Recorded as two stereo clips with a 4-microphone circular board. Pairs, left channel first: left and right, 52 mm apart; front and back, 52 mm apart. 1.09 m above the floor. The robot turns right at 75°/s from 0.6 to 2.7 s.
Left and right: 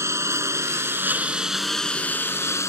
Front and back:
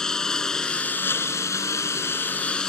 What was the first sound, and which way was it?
A lawn mower, 80° right.